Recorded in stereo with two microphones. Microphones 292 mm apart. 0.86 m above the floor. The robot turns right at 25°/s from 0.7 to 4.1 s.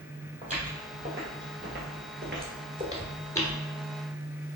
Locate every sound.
0.4 s footsteps: 25° right (ahead or behind), 1.8 m; by 3.6 s 20° left (ahead or behind), 1.0 m